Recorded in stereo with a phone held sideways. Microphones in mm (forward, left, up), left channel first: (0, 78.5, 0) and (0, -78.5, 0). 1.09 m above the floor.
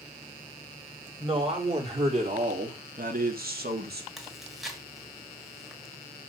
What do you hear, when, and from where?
1.2 s a man speaking: 35° right (ahead or behind), 3 m; by 4.1 s 85° right, 1.7 m
4.2 s chewing: centre (ahead or behind), 2 m